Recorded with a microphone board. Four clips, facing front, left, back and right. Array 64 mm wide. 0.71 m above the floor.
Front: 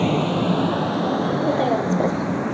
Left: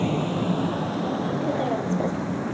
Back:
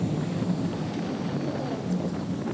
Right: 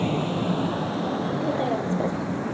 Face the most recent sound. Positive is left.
turn(degrees=0)